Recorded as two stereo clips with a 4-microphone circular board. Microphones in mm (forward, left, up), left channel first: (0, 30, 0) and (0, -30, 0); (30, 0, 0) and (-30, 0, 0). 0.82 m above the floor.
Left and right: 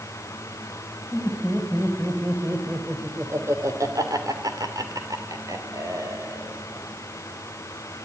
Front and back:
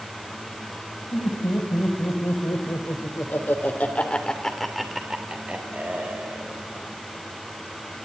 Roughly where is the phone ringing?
No phone ringing in this recording.